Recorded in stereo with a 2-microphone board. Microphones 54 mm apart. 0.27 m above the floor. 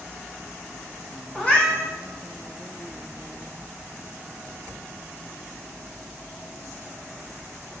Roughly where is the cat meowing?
Centre.